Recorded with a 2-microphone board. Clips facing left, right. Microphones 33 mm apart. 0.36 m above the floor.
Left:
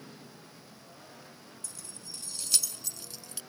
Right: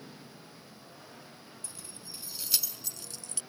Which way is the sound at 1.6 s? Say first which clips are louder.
Left 1 dB; 25° right (ahead or behind).